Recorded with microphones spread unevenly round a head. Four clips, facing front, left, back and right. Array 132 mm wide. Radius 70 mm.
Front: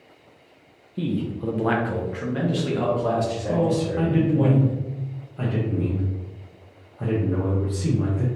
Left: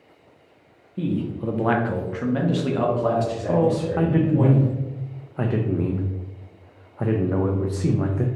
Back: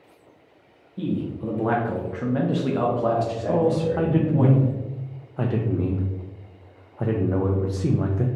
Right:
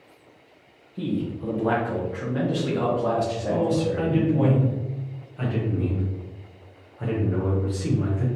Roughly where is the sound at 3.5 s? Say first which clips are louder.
Left 3 dB, back 2 dB; behind left.